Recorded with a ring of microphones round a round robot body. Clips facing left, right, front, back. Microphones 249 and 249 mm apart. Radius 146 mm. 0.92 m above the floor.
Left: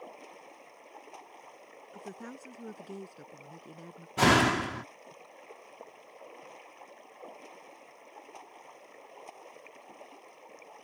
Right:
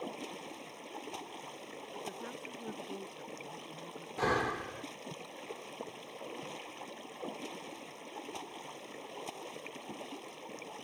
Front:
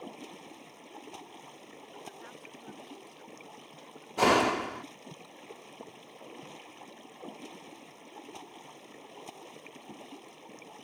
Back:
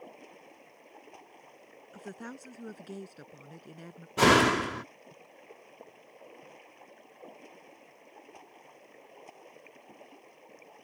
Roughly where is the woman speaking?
Behind left.